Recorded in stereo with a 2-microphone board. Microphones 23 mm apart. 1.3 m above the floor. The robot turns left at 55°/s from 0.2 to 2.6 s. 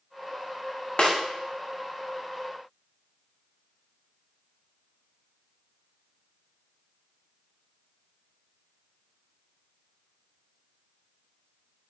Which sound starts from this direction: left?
A snare drum, at 1.0 s.